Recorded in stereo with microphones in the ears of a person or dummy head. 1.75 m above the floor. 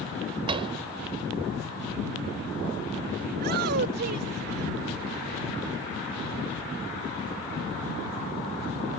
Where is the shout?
55° right (ahead or behind).